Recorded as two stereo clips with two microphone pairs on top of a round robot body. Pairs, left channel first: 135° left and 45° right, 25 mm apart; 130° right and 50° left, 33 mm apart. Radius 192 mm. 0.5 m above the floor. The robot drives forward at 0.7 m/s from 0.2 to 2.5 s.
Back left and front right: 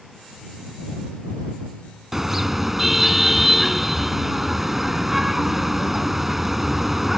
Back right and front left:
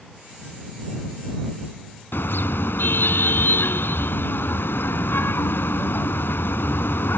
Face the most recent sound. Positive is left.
turn(degrees=-125)